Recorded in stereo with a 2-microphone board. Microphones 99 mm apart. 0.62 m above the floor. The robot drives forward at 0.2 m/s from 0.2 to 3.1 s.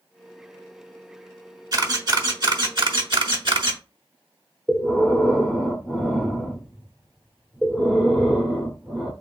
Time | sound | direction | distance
1.7 | a camera shutter | 40° right (ahead or behind) | 1.1 m
4.7 | breathing | 5° right (ahead or behind) | 0.9 m